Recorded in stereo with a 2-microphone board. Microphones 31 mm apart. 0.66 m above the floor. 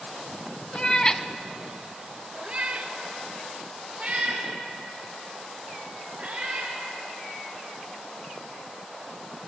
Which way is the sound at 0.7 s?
30° left (ahead or behind).